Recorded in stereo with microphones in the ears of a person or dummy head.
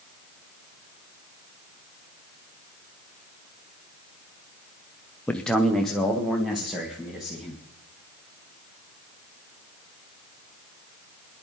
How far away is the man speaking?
About 0.6 m.